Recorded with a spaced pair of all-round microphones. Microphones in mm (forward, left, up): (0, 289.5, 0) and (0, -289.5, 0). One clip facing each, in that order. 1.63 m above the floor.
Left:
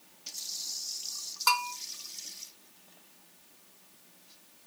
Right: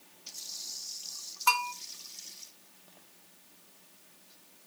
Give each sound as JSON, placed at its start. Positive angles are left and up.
{"t": 1.5, "sound": "a bell", "side_deg": 60, "distance_m": 0.9}